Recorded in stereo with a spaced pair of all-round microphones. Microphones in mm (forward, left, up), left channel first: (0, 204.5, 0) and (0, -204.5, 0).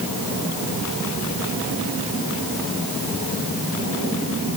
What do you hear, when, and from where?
Only background noise.